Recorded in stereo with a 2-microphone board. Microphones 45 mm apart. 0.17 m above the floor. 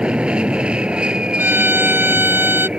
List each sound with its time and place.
0.0 s an aircraft: 25° right (ahead or behind)
1.4 s a violin: 60° right (ahead or behind)